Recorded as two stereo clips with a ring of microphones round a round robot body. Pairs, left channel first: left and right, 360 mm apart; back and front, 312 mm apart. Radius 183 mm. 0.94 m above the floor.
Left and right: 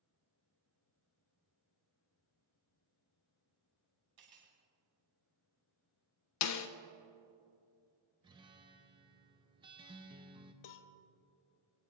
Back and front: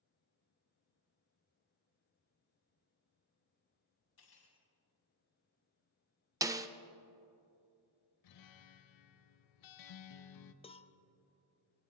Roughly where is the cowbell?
Left.